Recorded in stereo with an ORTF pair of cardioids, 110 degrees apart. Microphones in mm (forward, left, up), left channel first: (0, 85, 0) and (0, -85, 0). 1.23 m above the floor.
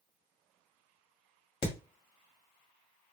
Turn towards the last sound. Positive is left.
turn(degrees=30)